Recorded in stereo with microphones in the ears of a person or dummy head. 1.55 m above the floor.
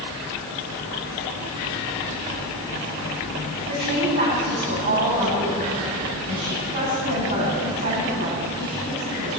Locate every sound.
3.7 s a woman speaking: 60° right (ahead or behind), 9 m